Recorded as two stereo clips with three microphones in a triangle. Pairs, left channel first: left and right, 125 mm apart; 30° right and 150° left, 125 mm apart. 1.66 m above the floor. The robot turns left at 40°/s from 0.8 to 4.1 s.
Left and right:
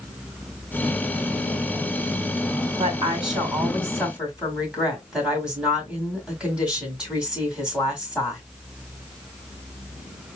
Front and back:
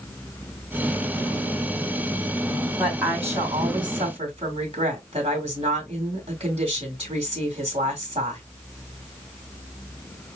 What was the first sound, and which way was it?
A woman speaking, 120° right.